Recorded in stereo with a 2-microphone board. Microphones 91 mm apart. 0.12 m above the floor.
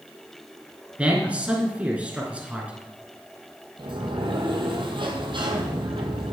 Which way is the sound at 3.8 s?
65° right (ahead or behind).